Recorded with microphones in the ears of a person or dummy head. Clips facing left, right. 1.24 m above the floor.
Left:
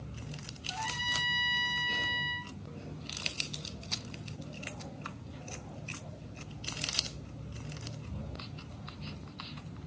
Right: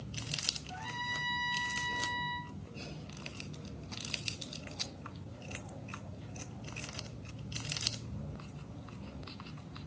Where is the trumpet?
55° left (ahead or behind), 1.3 m.